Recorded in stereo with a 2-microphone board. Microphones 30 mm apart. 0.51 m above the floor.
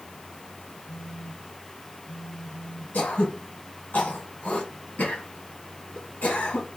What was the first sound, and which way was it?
A phone buzzing, 50° left (ahead or behind).